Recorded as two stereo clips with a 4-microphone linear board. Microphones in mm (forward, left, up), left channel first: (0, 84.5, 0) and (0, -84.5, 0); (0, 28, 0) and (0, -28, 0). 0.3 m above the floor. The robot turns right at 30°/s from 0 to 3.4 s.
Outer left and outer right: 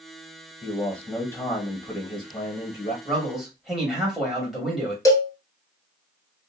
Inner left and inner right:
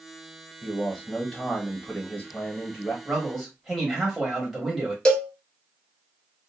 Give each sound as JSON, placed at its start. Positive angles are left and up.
{"t": 0.6, "sound": "a man speaking", "side_deg": 5, "distance_m": 1.1}
{"t": 3.0, "sound": "a man speaking", "side_deg": 5, "distance_m": 1.3}
{"t": 5.0, "sound": "a cowbell", "side_deg": 20, "distance_m": 0.8}